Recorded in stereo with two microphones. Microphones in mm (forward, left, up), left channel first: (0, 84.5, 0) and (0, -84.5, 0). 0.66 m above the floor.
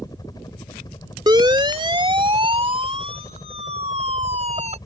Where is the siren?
25° right (ahead or behind); by 4.8 s 40° right (ahead or behind).